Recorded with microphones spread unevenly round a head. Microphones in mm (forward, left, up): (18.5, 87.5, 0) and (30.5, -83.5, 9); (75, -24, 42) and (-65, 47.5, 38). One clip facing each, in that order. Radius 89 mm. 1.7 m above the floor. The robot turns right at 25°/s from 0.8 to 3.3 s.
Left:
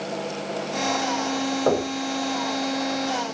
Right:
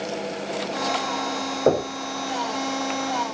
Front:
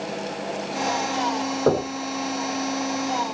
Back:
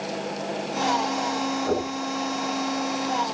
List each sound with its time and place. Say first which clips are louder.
1.7 s knocking: right 3 dB, front 7 dB; 25° right, 6.5 m; by 1.9 s 20° right, 6.5 m